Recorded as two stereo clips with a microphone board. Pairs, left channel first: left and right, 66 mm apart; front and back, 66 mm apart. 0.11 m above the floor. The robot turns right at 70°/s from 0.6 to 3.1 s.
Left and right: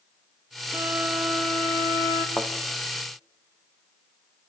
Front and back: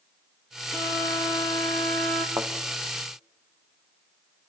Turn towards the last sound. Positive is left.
turn(degrees=-155)